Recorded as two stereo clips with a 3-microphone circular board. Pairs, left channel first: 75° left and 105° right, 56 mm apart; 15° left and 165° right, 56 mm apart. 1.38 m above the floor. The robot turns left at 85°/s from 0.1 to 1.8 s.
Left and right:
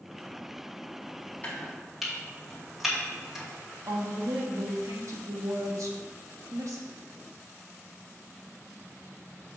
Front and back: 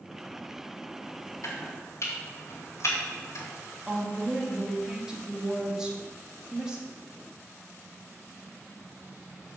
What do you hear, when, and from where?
1.4 s chopping: 15° left, 2.5 m; by 3.5 s 20° right, 2.5 m
3.9 s a woman speaking: 90° right, 1.8 m